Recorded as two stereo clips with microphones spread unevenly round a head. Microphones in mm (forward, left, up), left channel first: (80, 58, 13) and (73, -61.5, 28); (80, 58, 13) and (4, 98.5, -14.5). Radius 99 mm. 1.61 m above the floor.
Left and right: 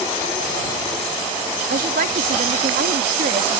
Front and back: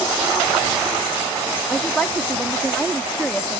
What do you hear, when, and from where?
1.7 s a woman speaking: 110° right